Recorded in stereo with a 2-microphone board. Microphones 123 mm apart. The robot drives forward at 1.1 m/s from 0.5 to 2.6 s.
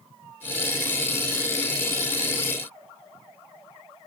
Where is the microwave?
No microwave in this recording.